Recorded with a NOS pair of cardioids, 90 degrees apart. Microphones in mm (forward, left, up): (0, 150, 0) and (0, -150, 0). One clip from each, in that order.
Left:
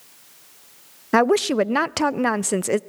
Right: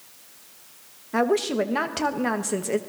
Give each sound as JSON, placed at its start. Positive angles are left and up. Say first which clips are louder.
{"t": 1.1, "sound": "a woman speaking", "louder": "left 5 dB", "azimuth_deg": 65, "distance_m": 0.5}